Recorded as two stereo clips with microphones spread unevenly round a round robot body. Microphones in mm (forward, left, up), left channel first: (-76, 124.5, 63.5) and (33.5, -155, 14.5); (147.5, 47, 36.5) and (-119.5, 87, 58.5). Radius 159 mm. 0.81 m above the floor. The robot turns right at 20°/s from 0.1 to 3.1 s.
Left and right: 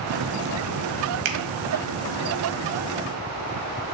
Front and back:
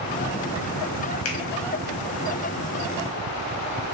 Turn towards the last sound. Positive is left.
turn(degrees=-15)